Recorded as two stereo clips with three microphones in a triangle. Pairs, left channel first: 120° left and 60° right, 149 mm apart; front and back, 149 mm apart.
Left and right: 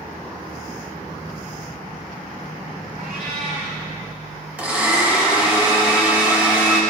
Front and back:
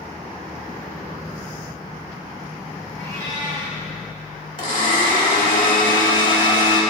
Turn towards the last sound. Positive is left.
turn(degrees=20)